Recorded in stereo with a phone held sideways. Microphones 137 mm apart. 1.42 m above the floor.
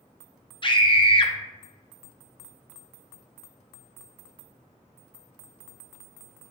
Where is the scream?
35° left (ahead or behind), 0.5 m.